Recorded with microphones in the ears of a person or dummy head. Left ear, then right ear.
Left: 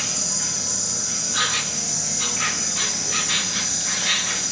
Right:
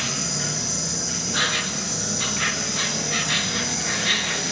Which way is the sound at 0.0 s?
5° left (ahead or behind).